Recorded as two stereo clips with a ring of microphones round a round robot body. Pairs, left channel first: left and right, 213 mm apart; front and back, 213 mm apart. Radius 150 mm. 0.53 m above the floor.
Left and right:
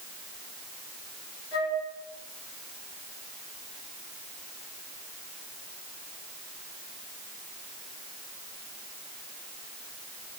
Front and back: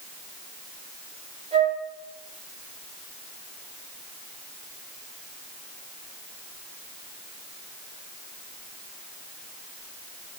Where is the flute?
120° left, 5.5 m.